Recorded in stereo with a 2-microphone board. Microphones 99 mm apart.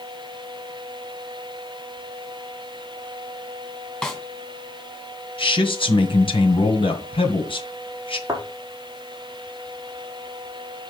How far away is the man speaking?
About 1.9 m.